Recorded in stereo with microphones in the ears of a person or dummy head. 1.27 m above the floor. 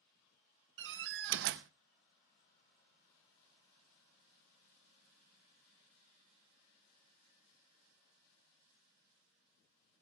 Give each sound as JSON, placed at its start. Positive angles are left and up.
{"t": 0.8, "sound": "a door slam", "side_deg": -60, "distance_m": 0.7}